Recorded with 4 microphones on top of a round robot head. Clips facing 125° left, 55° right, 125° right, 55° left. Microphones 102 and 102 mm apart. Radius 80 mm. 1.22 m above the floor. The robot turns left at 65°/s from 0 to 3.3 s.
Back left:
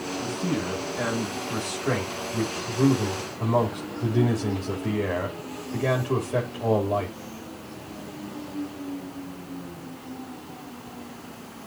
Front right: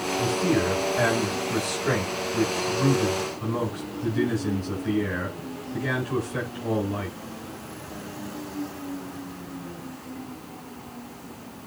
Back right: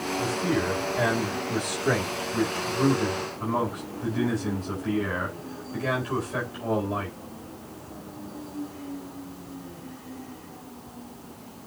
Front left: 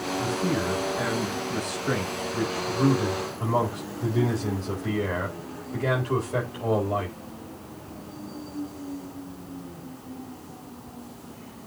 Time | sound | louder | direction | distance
0.2 | a man speaking | front right 6 dB, back right 1 dB | 40° right | 4.5 m